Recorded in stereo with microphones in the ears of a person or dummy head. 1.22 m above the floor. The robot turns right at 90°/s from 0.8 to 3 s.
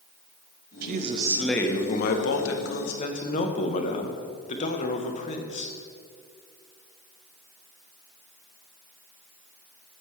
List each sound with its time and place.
0.8 s a man speaking: 65° right, 0.8 m; by 5.7 s 135° left, 0.8 m